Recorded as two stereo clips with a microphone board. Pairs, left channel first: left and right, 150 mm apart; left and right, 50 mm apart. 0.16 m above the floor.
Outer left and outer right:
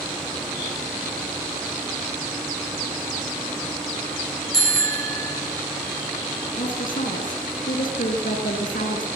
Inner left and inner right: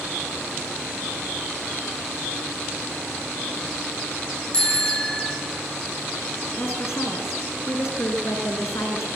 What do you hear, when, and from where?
4.5 s a bicycle bell: 25° left (ahead or behind), 6 m
6.6 s a woman speaking: 70° left (ahead or behind), 5.5 m